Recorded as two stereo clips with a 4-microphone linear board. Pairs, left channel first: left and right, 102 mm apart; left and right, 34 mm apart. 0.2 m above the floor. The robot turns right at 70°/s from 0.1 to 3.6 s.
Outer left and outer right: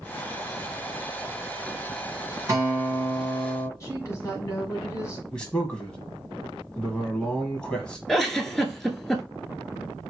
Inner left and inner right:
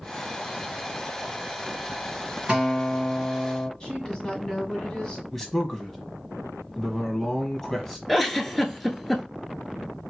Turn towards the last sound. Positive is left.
turn(degrees=5)  # may be behind; listen again after turning